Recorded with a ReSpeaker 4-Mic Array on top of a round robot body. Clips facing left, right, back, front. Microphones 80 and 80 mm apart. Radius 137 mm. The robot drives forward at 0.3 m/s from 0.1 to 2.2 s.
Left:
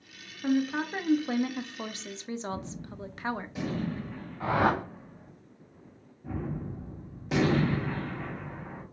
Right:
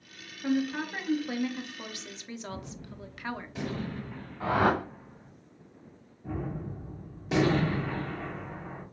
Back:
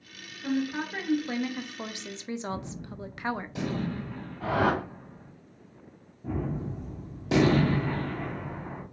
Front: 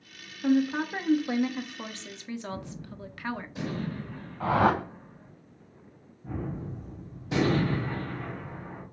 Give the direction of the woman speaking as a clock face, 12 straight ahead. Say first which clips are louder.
Left 2 dB, front 5 dB; 11 o'clock.